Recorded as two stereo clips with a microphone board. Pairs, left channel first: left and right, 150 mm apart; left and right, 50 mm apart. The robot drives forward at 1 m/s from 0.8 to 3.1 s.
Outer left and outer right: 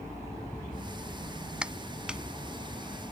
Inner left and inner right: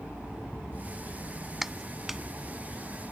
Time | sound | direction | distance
1.6 | a clap | 5° right (ahead or behind) | ?